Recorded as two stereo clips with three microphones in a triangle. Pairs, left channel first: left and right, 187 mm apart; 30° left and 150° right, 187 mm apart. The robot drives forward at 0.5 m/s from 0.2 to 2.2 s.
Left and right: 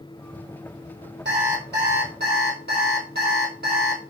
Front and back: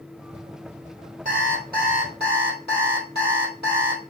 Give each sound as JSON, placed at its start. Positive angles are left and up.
{"t": 1.2, "sound": "an alarm clock", "azimuth_deg": -105, "distance_m": 2.0}